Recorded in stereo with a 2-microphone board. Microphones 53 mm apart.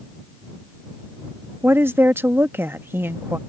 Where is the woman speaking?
45° right (ahead or behind).